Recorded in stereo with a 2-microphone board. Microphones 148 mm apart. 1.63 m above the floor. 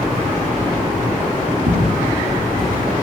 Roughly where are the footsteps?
Right.